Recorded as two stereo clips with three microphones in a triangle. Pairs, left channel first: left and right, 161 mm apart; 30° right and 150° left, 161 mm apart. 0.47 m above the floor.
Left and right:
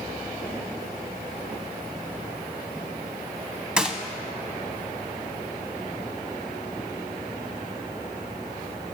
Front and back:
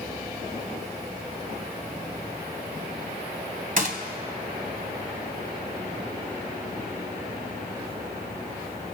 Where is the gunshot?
175° right, 1.5 m.